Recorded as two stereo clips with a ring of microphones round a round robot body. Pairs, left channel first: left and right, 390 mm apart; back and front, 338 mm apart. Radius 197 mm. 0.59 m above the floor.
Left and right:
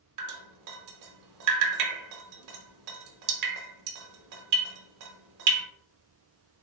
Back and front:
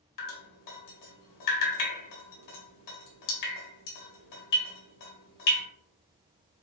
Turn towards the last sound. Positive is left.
turn(degrees=-135)